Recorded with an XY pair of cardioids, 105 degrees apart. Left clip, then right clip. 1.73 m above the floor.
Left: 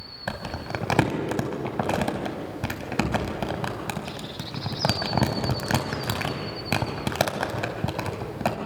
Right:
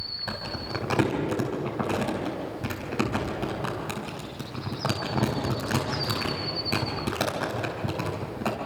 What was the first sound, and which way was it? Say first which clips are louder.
Crumpling: left 1 dB; 45° left.